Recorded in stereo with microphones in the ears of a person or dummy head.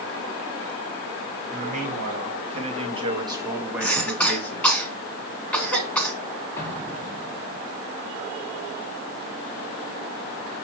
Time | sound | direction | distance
1.5 | a man speaking | 45° right (ahead or behind) | 2.5 m
3.8 | a cough | 10° left (ahead or behind) | 3 m
6.6 | an explosion | 15° left (ahead or behind) | 2.5 m